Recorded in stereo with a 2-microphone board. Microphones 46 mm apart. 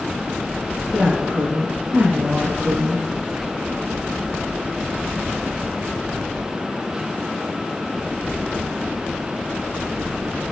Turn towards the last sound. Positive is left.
turn(degrees=-35)  # may be behind; listen again after turning